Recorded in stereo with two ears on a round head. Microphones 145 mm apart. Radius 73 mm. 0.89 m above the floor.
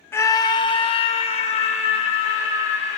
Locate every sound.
0.1 s a scream: 15° left (ahead or behind), 0.5 m; by 3.0 s 45° left (ahead or behind), 2 m